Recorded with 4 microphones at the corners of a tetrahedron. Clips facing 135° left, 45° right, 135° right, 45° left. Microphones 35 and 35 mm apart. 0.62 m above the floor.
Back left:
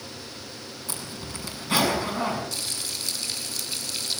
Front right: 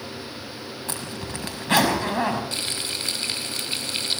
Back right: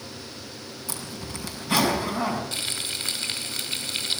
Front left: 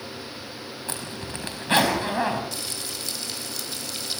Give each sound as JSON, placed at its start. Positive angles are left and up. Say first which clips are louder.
{"t": 0.9, "sound": "a zipper", "louder": "front right 4 dB, front left 1 dB", "azimuth_deg": -5, "distance_m": 5.5}
{"t": 2.5, "sound": "frying", "louder": "front right 4 dB, back right 3 dB", "azimuth_deg": -90, "distance_m": 3.0}